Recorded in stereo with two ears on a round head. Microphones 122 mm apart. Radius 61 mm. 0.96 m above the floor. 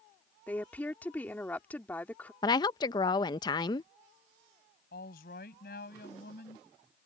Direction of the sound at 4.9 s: 75° left (ahead or behind).